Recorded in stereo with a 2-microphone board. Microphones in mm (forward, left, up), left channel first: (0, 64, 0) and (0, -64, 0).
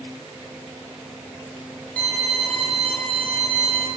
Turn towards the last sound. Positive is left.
turn(degrees=15)  # may be behind; listen again after turning